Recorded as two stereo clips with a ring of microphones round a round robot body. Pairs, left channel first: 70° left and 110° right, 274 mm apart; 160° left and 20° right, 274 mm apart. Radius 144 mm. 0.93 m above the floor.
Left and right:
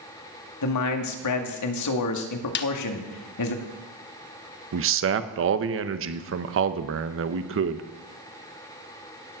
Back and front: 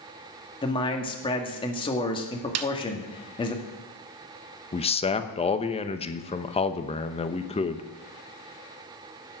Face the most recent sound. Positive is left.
turn(degrees=-140)